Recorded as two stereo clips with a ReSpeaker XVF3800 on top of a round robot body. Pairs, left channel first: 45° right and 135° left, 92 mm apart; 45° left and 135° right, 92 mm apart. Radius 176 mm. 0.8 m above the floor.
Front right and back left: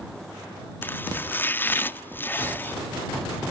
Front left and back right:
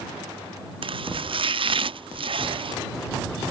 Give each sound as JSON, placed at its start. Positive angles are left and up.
{"t": 0.8, "sound": "chopping", "azimuth_deg": -115}